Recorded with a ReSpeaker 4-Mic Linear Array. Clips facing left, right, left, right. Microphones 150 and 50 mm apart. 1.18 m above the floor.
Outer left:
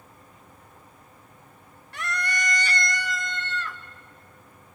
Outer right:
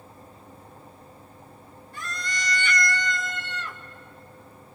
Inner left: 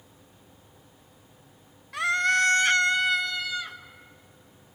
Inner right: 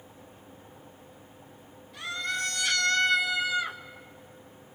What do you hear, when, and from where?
1.9 s a scream: 75° left (ahead or behind), 1.1 m; by 3.8 s 25° right (ahead or behind), 1.4 m